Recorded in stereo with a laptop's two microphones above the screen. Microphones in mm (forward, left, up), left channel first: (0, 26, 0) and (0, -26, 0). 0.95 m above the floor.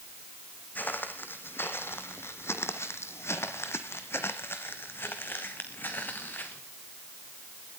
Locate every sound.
0.8 s footsteps: 35° left (ahead or behind), 2 m; by 6.6 s 40° left (ahead or behind), 3.5 m